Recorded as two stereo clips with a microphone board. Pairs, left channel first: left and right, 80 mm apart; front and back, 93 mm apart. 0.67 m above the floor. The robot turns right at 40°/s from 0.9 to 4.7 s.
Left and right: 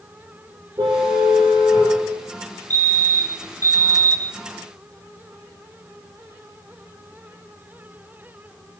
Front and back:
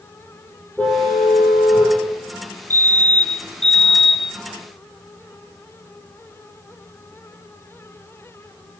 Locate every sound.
0.8 s a car horn: 80° right, 9 m; by 2.0 s 35° right, 9 m
2.7 s a fire alarm: 45° left, 2 m; by 4.4 s 110° left, 2 m